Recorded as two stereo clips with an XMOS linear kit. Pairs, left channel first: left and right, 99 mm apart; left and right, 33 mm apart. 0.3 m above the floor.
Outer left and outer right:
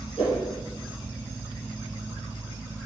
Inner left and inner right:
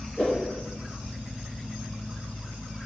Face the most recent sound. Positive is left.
turn(degrees=70)  # may be behind; listen again after turning